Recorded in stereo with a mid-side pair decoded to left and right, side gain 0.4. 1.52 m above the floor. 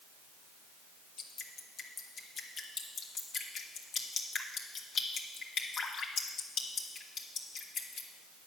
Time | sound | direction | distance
1.2 | dripping | 60° left | 1.5 m